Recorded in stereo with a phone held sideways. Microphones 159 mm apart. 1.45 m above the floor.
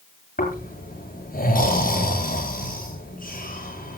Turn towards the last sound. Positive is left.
turn(degrees=65)  # may be behind; listen again after turning